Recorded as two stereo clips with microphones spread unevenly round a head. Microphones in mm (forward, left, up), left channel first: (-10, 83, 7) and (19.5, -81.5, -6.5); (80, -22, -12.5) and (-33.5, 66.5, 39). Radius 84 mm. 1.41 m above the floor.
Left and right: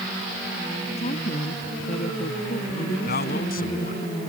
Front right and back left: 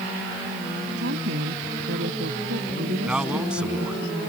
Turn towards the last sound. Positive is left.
turn(degrees=60)